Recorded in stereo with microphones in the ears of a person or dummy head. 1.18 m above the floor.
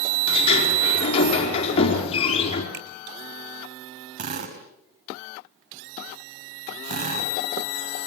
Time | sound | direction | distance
0.3 | a sliding door | 35° left (ahead or behind) | 4.5 m
2.7 | a finger snap | 65° right (ahead or behind) | 3 m
4.2 | a drill | 55° right (ahead or behind) | 5 m